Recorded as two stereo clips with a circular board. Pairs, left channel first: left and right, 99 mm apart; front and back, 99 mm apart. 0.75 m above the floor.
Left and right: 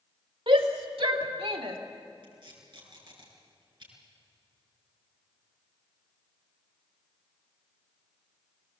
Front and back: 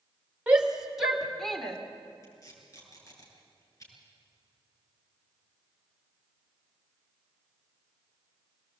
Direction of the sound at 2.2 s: 55° right.